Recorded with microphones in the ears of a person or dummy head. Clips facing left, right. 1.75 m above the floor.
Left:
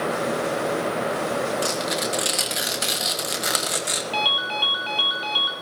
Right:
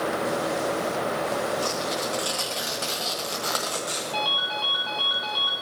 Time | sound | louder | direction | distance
1.6 | tearing paper | left 2 dB | 25° left (ahead or behind) | 1.2 m
4.1 | a ringtone | left 2 dB | 30° left (ahead or behind) | 1.1 m